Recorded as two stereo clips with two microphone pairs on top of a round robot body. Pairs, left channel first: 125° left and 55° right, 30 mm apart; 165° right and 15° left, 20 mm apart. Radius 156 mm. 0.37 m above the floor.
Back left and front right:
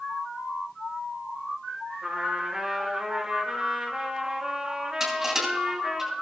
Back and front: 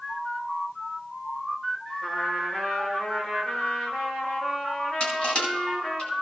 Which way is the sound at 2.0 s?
130° right.